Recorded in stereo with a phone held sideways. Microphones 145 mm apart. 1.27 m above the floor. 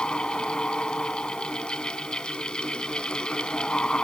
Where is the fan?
5° left (ahead or behind).